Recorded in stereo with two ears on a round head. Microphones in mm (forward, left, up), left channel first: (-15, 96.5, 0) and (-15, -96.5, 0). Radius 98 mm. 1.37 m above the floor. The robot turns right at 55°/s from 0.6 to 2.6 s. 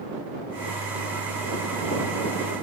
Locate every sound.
Only background noise.